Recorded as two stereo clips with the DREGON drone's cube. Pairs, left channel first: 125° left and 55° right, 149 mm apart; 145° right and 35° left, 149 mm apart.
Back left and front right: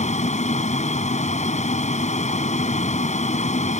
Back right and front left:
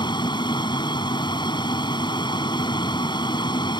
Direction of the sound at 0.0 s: 155° left.